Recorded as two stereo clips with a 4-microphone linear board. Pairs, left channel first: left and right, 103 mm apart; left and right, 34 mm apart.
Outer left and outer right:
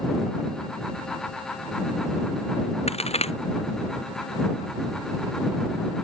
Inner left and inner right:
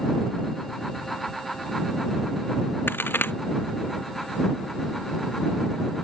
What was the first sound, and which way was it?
A crack, 90° left.